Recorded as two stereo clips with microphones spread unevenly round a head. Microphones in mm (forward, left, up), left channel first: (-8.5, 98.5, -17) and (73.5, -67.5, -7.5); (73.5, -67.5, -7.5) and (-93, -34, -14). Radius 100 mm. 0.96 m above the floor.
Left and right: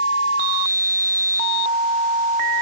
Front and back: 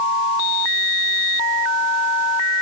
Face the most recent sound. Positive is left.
No sound to turn to.